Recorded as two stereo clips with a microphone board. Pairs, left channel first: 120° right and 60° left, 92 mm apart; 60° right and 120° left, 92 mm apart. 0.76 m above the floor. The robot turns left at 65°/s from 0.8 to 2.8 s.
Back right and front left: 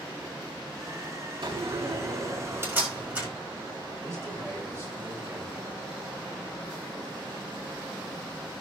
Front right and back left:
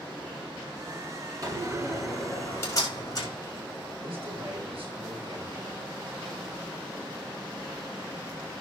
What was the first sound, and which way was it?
A door slam, 80° left.